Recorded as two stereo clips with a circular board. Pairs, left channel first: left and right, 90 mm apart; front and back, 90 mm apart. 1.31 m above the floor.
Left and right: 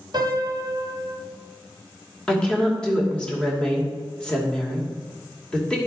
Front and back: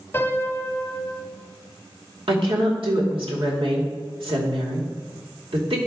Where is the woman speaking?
170° left, 2.5 m.